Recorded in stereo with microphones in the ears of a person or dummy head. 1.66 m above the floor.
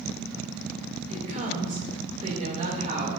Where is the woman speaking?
35° right (ahead or behind), 2.5 m.